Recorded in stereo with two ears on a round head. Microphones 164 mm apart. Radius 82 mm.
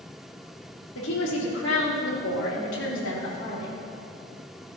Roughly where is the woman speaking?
Left.